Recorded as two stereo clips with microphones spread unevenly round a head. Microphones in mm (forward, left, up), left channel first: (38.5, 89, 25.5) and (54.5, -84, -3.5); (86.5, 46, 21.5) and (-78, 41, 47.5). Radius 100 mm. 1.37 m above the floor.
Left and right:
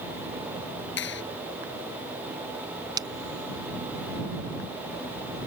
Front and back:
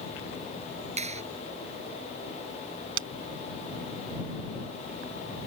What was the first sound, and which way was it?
A clap, 135° left.